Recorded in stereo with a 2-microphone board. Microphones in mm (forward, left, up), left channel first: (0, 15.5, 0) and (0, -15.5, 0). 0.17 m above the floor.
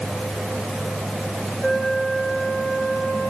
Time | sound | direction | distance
1.6 | a flute | 75° left (ahead or behind) | 7.5 m